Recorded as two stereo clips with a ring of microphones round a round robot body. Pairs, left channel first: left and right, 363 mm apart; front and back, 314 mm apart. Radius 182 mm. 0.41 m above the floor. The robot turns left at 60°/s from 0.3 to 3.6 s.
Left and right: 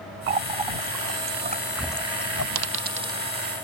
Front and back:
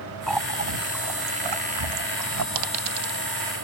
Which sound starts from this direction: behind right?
A dropped coin, at 2.5 s.